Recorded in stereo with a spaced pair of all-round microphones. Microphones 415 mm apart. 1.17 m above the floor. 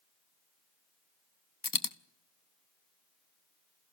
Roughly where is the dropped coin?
Left.